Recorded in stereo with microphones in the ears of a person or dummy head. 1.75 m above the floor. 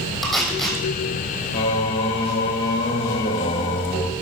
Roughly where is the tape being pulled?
Centre.